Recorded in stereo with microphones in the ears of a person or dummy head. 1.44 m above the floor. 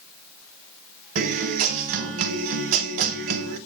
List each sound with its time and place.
1.1 s a guitar: 50° right (ahead or behind), 0.9 m